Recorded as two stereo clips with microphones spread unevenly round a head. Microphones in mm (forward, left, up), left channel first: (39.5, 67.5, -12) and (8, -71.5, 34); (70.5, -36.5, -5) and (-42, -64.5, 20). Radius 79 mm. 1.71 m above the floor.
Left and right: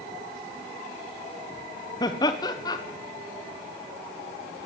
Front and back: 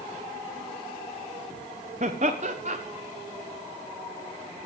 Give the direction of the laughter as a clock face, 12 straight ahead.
7 o'clock.